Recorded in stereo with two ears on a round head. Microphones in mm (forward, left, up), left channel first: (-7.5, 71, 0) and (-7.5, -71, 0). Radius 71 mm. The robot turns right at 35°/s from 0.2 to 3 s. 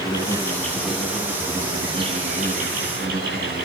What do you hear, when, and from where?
0.0 s an insect: 155° left, 9 m; by 3.6 s 105° right, 9 m